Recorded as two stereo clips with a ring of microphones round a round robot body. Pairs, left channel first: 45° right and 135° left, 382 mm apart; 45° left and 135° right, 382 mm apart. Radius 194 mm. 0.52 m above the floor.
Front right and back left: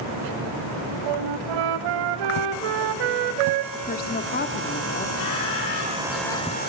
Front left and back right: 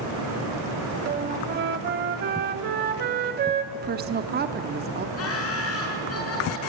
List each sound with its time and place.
1.1 s a flute: 160° left, 0.7 m
3.7 s a woman speaking: 90° right, 0.7 m
5.2 s laughter: 5° right, 6.5 m